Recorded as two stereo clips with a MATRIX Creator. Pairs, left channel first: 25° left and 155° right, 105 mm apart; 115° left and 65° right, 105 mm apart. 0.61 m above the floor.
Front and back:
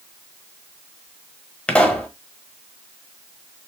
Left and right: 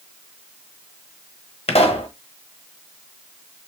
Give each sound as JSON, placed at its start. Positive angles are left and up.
{"t": 1.7, "sound": "a pop", "azimuth_deg": 100, "distance_m": 0.9}